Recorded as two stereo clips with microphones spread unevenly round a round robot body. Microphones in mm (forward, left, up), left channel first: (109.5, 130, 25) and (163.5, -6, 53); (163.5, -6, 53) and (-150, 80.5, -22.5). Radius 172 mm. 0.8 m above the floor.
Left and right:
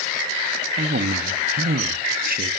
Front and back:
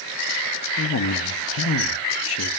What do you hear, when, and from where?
0.8 s a man speaking: 70° right, 0.8 m